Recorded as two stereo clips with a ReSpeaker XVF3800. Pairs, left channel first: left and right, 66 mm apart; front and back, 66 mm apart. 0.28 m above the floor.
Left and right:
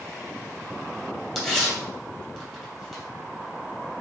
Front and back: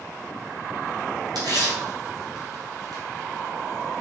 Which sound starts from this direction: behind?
Tearing paper, at 1.4 s.